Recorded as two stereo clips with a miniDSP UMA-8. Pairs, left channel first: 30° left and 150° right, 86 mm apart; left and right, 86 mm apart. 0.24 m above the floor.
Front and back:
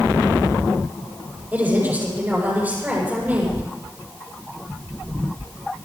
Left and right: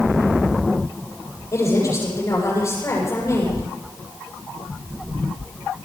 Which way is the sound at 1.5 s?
140° left.